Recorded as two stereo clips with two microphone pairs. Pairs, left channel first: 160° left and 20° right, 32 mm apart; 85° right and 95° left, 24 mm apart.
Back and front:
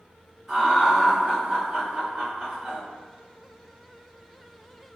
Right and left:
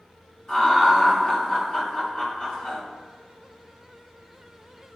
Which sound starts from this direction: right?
Laughter, at 0.5 s.